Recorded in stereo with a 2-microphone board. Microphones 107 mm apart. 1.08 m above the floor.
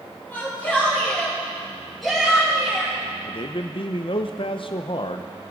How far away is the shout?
About 3.5 m.